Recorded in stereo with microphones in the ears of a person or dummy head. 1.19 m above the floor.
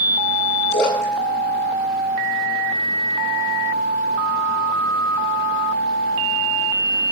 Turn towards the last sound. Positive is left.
turn(degrees=60)  # may be behind; listen again after turning